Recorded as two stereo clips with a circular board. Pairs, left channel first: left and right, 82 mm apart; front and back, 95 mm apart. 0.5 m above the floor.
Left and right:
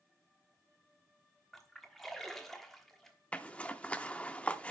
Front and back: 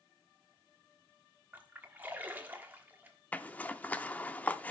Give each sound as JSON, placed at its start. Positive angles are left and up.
{"t": 1.5, "sound": "a splash", "azimuth_deg": 170, "distance_m": 1.1}
{"t": 3.3, "sound": "a zipper", "azimuth_deg": 40, "distance_m": 0.5}